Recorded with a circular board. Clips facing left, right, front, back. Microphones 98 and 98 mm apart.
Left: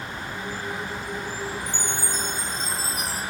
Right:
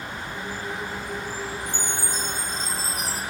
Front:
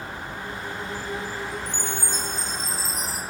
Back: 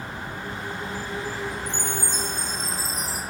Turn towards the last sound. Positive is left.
turn(degrees=155)